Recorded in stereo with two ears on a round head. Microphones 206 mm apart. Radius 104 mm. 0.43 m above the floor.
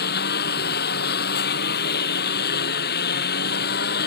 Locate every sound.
0.0 s a lawn mower: 45° left (ahead or behind)